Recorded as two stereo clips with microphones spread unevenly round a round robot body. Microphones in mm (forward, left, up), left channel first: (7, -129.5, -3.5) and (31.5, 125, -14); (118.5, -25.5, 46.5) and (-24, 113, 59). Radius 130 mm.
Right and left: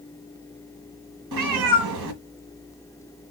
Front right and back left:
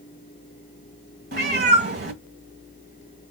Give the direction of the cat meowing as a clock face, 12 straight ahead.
9 o'clock.